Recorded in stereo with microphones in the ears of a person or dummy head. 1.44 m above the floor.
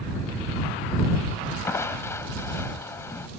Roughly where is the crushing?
Centre.